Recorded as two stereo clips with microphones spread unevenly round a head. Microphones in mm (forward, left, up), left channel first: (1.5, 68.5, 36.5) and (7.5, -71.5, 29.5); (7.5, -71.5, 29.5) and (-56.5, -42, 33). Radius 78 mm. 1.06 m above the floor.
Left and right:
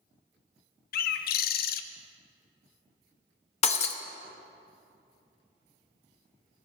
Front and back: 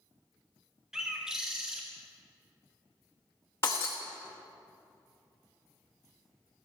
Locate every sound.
0.9 s a bird: 70° left, 0.5 m
3.6 s breaking glass: 50° left, 0.7 m